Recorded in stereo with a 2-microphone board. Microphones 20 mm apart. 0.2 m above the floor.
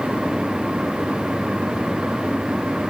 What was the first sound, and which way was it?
Only background noise.